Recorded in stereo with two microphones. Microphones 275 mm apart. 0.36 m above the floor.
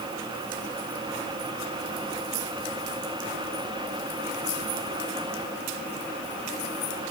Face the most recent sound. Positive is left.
No sound to turn to.